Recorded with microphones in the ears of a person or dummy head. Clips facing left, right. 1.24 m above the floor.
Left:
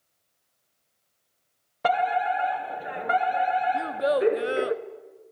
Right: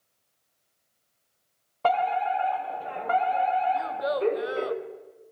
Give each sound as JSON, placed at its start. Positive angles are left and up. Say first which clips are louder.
{"t": 1.8, "sound": "a fire alarm", "louder": "left 1 dB", "side_deg": 15, "distance_m": 1.8}
{"t": 3.7, "sound": "a child speaking", "louder": "left 4 dB", "side_deg": 35, "distance_m": 0.9}